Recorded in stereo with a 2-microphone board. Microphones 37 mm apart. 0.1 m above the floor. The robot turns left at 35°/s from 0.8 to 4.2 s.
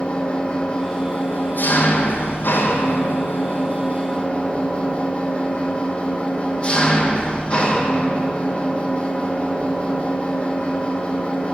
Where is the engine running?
150° left, 1.0 m; by 11.5 s 35° left, 1.0 m.